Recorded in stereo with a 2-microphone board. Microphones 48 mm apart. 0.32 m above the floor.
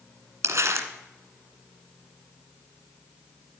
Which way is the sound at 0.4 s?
65° right (ahead or behind).